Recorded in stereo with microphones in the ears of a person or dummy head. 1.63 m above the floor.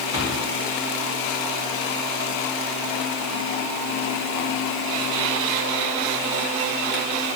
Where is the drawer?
30° right (ahead or behind), 2.5 m.